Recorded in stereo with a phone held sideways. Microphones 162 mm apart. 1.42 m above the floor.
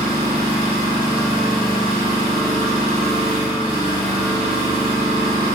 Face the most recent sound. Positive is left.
turn(degrees=-30)  # may be behind; listen again after turning